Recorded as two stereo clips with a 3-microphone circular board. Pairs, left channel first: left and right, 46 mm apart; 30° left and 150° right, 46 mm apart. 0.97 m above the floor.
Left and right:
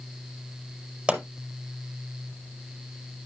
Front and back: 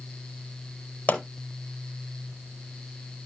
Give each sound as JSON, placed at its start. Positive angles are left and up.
{"t": 1.1, "sound": "a pop", "azimuth_deg": -25, "distance_m": 4.5}